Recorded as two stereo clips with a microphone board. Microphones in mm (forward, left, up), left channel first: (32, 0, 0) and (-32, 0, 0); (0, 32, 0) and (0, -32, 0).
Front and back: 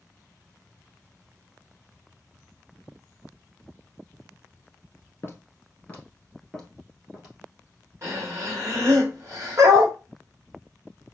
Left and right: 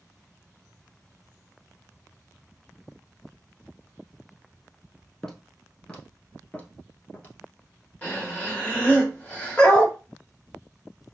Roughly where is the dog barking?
Behind.